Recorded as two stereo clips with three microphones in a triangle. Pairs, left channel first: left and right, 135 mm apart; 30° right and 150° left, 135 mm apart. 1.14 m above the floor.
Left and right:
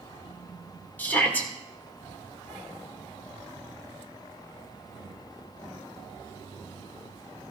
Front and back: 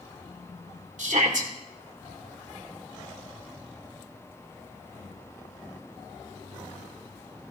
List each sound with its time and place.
1.0 s a shout: 165° left, 2 m